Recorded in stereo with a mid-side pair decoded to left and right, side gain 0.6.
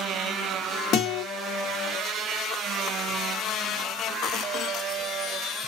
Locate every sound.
0.9 s a guitar: 55° left, 1.8 m